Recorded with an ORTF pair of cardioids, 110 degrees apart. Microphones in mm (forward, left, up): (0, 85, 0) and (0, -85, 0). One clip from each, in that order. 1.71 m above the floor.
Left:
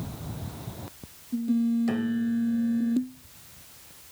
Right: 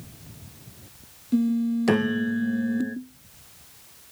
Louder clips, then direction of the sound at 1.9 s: Right 6 dB; 60° right.